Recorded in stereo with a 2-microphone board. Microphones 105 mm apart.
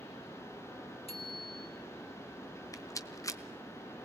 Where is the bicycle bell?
70° left (ahead or behind), 3.5 m.